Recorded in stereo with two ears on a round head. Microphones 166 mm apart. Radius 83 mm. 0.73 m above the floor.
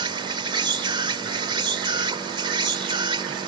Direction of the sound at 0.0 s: 25° right (ahead or behind).